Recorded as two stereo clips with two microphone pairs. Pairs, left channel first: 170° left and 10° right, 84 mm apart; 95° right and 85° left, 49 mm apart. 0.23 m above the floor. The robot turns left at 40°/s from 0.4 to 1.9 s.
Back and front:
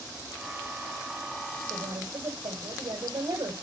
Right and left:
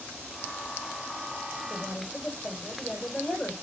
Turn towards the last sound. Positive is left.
turn(degrees=-30)